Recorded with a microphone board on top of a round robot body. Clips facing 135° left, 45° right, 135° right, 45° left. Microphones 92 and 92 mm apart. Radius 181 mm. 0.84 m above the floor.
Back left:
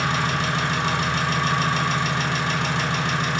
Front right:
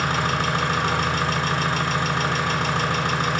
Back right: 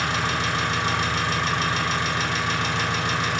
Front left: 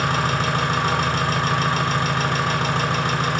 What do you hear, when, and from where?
0.0 s an engine running: straight ahead, 2 m